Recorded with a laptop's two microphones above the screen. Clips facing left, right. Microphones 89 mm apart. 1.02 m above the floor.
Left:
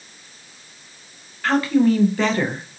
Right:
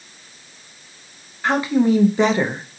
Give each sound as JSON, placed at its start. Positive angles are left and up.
{"t": 1.4, "sound": "a woman speaking", "side_deg": -20, "distance_m": 0.5}